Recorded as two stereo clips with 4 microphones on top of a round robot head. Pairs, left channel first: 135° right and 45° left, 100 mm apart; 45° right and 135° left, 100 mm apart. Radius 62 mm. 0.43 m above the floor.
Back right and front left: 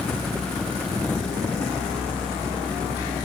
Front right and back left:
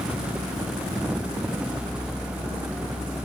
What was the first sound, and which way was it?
Only background noise.